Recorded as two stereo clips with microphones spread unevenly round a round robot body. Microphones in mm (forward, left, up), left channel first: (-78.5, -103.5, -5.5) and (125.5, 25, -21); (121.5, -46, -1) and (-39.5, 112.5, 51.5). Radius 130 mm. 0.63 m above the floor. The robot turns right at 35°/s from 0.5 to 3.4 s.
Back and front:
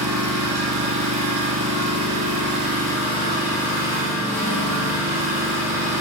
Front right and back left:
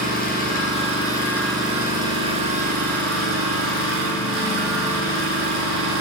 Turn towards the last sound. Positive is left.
turn(degrees=115)